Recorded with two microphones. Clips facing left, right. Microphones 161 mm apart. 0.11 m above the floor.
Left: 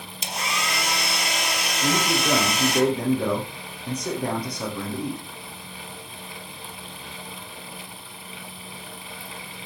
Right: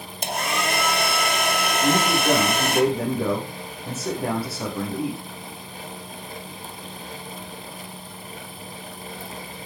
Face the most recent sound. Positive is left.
turn(degrees=-5)  # may be behind; listen again after turning